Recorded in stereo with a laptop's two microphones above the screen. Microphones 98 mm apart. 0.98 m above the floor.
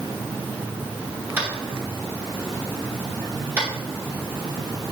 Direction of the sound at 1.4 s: 25° right (ahead or behind).